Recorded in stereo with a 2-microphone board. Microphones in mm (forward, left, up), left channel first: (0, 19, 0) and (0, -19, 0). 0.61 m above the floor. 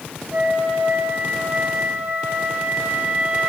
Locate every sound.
0.3 s a flute: 65° right (ahead or behind), 2.5 m